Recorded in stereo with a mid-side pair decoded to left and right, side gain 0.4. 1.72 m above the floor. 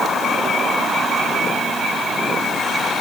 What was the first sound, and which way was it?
Only background noise.